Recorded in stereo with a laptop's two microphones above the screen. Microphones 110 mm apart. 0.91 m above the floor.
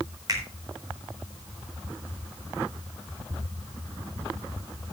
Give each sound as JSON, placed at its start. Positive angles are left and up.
{"t": 0.3, "sound": "a finger snap", "side_deg": -35, "distance_m": 4.0}